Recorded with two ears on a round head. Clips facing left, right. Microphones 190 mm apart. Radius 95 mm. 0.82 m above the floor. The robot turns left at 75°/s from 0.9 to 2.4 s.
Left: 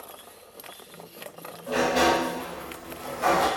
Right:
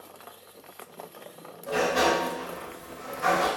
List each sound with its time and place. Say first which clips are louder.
1.7 s a sliding door: left 2 dB; straight behind, 1.9 m; by 3.5 s 125° left, 1.9 m